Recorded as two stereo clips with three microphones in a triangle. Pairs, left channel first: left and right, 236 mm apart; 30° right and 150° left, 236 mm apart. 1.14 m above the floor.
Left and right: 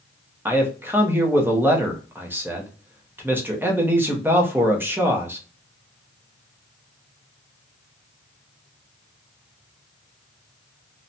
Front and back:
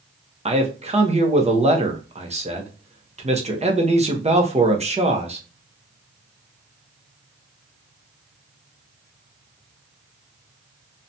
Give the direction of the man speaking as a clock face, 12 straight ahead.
5 o'clock.